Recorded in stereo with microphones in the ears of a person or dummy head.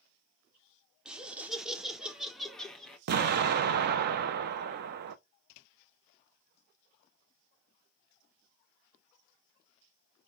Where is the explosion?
55° right (ahead or behind), 0.5 m.